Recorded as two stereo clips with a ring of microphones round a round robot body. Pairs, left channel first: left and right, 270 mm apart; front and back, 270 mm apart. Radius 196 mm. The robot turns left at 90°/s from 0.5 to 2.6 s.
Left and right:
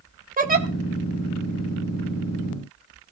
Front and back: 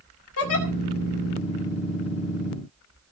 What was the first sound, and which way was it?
A giggle, 35° right.